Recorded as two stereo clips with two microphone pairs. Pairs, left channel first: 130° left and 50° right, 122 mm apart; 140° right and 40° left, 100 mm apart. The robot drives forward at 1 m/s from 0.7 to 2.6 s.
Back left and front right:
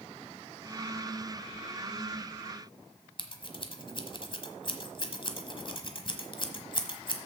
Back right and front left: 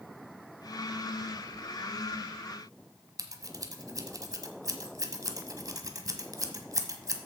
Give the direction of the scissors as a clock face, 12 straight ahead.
9 o'clock.